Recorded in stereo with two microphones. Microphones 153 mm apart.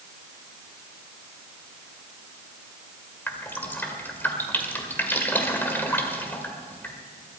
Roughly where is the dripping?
Centre.